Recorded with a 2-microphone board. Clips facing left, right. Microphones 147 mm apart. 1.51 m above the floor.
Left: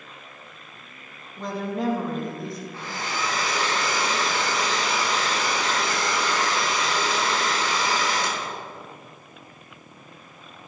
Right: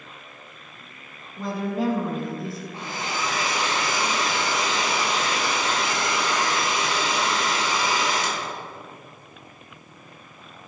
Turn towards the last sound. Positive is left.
turn(degrees=-20)  # may be behind; listen again after turning